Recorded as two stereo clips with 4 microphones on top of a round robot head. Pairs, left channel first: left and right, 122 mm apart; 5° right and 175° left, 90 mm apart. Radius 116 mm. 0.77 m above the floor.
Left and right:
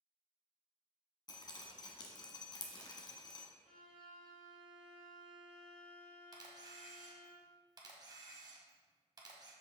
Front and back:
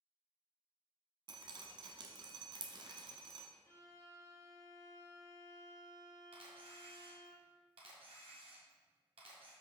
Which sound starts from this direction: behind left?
Dripping, at 1.3 s.